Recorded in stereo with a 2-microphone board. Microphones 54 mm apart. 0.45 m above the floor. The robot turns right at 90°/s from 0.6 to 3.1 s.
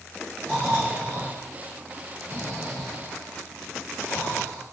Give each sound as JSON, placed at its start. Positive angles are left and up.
{"t": 0.4, "sound": "snoring", "azimuth_deg": 180, "distance_m": 5.0}